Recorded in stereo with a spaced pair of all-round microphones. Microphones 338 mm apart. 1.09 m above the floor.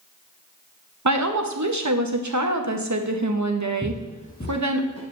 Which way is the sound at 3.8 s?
5° left (ahead or behind).